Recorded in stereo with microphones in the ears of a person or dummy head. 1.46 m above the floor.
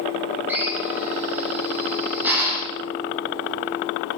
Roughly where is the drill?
Centre.